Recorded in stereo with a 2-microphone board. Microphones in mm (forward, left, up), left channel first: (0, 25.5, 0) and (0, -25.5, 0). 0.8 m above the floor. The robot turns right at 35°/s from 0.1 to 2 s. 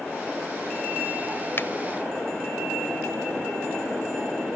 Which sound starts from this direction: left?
A finger snap, at 1.6 s.